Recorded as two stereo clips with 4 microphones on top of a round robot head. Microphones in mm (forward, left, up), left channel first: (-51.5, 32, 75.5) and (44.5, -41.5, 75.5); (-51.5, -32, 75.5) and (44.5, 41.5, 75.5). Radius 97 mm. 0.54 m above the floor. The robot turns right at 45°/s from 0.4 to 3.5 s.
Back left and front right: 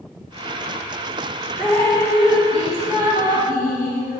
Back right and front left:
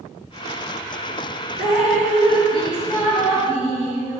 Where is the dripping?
55° left, 1.8 m; by 4.2 s 140° left, 1.8 m.